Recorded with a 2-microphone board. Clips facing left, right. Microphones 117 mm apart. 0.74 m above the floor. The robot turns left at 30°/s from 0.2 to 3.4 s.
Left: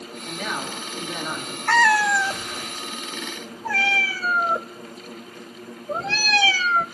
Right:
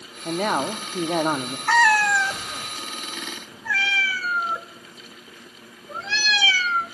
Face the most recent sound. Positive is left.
turn(degrees=45)  # may be behind; listen again after turning